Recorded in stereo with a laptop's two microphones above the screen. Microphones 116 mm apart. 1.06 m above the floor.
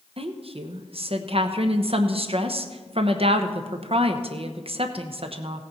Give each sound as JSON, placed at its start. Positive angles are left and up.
{"t": 0.2, "sound": "a woman speaking", "side_deg": -55, "distance_m": 0.9}